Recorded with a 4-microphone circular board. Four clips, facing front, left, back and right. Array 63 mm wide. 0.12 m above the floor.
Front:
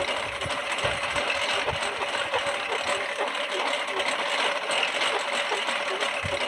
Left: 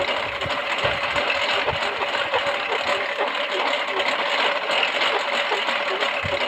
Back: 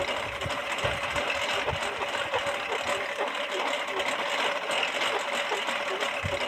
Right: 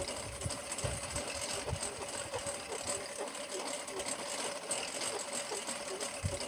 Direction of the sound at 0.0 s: 85° left.